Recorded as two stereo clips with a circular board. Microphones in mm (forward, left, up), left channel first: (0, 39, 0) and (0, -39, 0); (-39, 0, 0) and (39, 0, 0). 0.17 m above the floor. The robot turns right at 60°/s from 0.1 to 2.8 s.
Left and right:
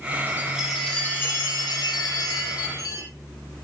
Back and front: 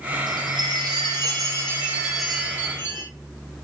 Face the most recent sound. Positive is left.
turn(degrees=125)